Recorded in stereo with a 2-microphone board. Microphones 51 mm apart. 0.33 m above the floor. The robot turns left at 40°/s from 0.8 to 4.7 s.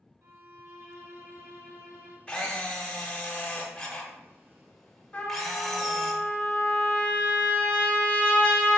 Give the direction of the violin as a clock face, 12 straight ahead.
2 o'clock.